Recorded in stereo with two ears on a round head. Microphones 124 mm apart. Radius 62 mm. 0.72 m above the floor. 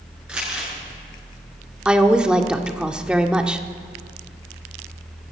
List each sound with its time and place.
0.3 s crumpling: 5° right (ahead or behind), 9 m
1.9 s a woman speaking: 5° right (ahead or behind), 1.6 m